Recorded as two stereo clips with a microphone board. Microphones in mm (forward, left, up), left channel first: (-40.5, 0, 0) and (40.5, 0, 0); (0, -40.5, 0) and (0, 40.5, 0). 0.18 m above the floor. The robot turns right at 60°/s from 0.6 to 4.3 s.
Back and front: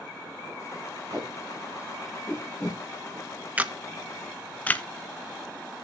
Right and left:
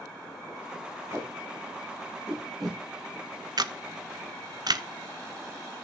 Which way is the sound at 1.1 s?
40° left.